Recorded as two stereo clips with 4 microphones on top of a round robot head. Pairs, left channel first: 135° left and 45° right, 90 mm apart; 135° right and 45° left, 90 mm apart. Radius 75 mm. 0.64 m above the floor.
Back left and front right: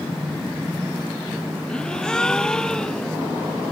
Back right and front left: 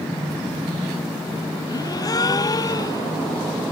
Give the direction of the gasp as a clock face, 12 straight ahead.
5 o'clock.